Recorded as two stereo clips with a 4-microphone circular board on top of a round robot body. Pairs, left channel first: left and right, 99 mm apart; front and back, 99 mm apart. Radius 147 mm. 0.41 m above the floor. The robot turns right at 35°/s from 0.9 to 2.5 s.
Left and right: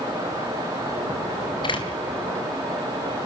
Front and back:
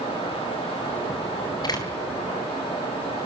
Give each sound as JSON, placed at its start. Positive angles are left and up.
{"t": 1.6, "sound": "a door slam", "azimuth_deg": 50, "distance_m": 4.0}